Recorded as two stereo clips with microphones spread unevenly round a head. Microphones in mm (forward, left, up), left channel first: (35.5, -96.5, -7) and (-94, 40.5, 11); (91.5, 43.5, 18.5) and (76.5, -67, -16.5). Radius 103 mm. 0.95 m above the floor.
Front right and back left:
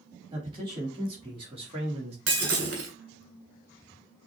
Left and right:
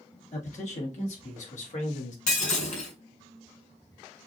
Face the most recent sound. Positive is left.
turn(degrees=90)